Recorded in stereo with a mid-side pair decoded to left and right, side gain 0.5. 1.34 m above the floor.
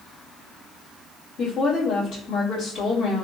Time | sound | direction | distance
1.4 | a woman speaking | 60° left | 2.0 m